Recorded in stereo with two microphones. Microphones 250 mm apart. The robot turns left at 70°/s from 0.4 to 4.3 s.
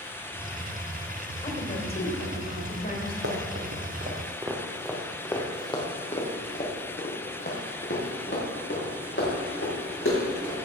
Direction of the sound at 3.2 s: 60° right (ahead or behind).